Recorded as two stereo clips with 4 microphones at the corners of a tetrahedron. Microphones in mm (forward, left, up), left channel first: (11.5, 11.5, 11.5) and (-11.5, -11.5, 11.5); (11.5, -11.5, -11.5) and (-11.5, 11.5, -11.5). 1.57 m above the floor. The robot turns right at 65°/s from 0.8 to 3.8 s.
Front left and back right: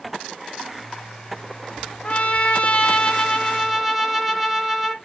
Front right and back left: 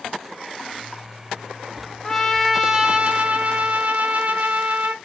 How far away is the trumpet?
About 0.7 m.